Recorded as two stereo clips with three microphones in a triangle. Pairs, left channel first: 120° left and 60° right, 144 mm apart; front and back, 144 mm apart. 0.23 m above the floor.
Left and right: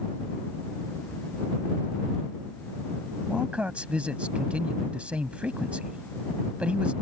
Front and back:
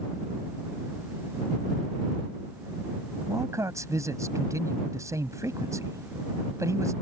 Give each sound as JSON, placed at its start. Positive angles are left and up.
{"t": 3.3, "sound": "a man speaking", "azimuth_deg": -135}